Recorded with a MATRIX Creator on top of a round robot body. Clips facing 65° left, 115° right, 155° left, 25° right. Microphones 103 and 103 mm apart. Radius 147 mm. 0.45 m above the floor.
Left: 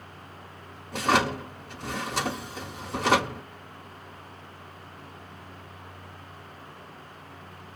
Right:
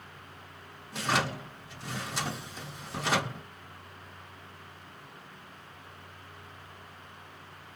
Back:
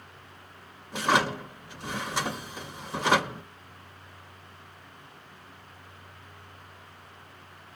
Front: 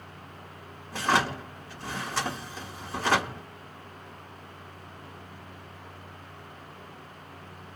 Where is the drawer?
85° left, 1.3 m.